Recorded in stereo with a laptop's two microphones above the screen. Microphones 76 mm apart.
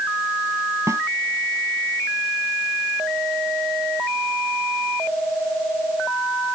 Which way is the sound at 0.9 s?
40° right (ahead or behind).